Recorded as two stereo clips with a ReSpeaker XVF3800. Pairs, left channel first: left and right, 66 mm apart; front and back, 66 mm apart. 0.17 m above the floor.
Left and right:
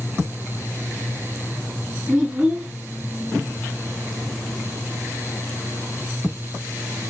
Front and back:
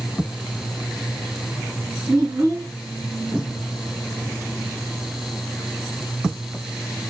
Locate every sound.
2.1 s a child speaking: 155° right, 1.6 m